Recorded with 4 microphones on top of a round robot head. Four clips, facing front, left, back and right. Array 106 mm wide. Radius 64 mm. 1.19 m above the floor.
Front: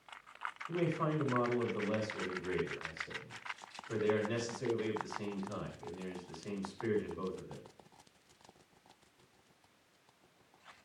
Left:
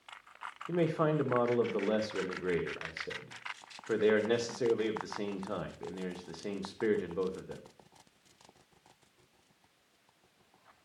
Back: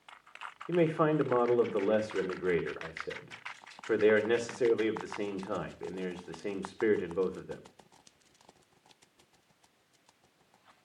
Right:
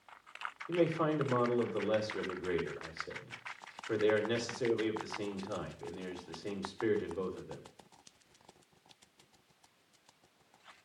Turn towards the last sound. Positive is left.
turn(degrees=155)